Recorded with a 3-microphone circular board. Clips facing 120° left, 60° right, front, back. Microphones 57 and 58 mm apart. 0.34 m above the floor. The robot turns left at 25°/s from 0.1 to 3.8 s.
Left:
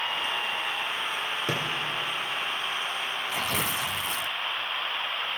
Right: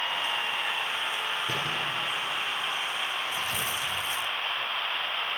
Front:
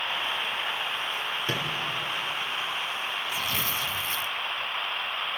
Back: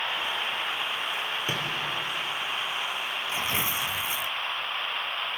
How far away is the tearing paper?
About 0.5 m.